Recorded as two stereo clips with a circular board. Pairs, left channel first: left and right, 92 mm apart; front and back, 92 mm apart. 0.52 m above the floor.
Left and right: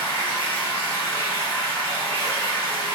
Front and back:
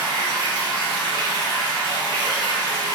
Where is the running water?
30° right, 1.3 m.